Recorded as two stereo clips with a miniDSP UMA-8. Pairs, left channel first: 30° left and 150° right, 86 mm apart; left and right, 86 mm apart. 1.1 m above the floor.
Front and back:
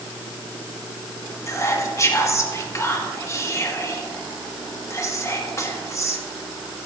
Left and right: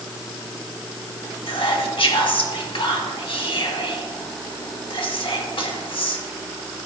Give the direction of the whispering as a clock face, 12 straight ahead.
9 o'clock.